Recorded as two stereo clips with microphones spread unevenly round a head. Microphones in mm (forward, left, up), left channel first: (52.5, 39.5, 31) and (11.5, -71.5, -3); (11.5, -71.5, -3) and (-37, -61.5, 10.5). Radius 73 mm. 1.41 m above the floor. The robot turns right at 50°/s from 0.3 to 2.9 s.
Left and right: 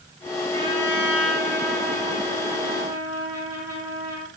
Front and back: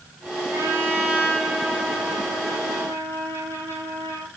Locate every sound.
0.5 s a trumpet: 165° right, 6.5 m; by 4.3 s 45° right, 6.5 m